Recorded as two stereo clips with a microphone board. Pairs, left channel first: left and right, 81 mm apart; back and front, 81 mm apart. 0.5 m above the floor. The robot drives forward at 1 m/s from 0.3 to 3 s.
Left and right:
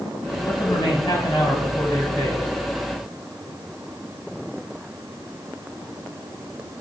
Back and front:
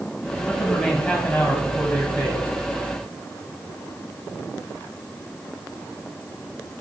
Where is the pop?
No pop in this recording.